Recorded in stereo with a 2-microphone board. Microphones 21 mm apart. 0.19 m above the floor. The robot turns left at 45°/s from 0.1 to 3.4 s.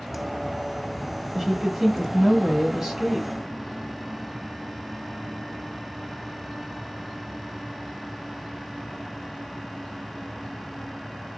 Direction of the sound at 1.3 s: 20° right (ahead or behind).